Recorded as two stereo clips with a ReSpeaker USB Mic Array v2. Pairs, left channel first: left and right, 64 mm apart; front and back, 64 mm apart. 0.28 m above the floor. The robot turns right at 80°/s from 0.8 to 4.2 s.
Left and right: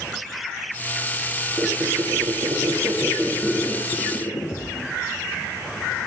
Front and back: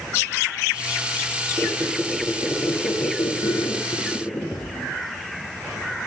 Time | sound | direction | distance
1.6 | a squeak | 140° right | 7.5 m